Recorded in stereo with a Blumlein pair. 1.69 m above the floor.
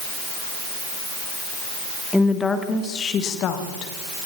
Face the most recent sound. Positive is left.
turn(degrees=40)